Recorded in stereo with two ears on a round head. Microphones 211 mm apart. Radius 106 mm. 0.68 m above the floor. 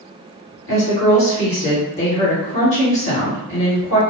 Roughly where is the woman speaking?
Left.